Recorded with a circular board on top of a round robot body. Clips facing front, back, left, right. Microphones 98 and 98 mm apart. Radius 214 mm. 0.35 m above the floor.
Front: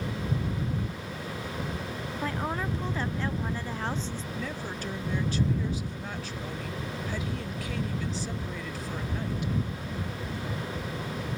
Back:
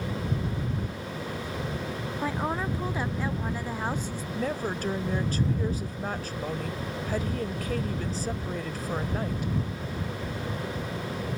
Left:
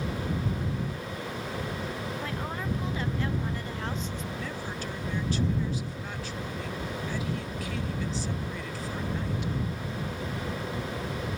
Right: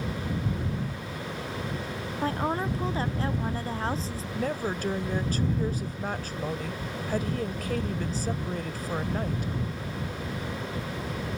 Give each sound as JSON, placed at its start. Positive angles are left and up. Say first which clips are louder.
{"t": 2.2, "sound": "a woman speaking", "louder": "back 2 dB, right 6 dB", "azimuth_deg": -110}
{"t": 4.3, "sound": "a woman speaking", "louder": "back 9 dB, right 6 dB", "azimuth_deg": -135}